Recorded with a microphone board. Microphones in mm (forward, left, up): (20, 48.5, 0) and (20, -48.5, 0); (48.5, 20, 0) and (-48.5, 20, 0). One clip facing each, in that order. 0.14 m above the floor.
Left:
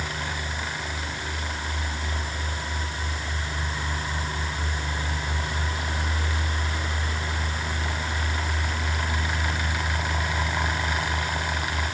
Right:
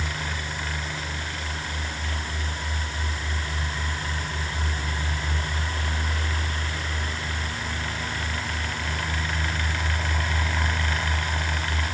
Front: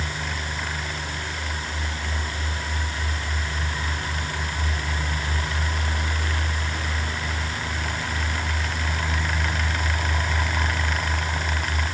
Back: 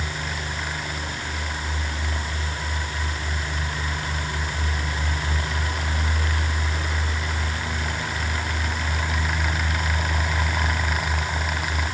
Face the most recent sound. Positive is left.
No sound to turn to.